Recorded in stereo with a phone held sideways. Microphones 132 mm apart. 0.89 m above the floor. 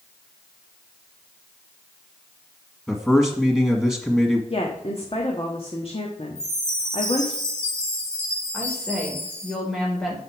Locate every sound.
2.9 s a man speaking: 10° left (ahead or behind), 1.6 m
4.5 s a woman speaking: 45° left (ahead or behind), 1.4 m
6.3 s a chime: 55° right (ahead or behind), 3.5 m
8.5 s a woman speaking: centre (ahead or behind), 3.5 m